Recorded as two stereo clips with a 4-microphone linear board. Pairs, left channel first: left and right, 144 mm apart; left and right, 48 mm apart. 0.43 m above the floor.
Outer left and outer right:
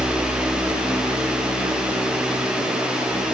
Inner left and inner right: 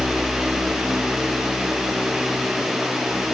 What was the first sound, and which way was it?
Only background noise.